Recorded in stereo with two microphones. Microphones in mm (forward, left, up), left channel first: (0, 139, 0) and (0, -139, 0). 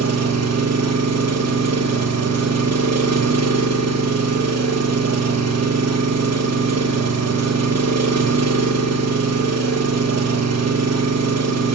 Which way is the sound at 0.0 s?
60° right (ahead or behind).